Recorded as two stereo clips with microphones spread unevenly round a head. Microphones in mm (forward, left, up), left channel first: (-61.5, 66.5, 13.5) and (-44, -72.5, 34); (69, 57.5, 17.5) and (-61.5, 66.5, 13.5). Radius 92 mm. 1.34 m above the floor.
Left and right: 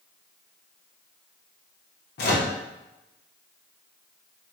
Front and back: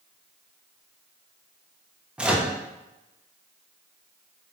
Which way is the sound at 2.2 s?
95° left.